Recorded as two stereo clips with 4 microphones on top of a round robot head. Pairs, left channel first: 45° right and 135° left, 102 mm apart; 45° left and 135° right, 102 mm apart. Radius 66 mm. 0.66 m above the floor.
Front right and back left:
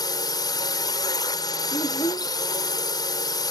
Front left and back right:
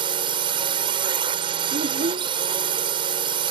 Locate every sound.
0.0 s a drone: 95° right
1.7 s a child speaking: 115° right